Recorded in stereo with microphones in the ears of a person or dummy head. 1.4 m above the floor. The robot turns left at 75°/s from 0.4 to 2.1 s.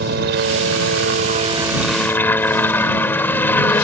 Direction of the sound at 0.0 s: 65° right.